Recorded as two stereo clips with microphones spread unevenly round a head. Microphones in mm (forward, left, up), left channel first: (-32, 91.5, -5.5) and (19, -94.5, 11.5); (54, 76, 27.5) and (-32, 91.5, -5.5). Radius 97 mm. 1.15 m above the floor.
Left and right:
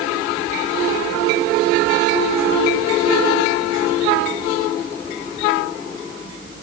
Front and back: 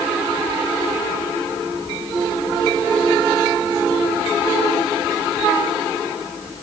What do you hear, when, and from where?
Only background noise.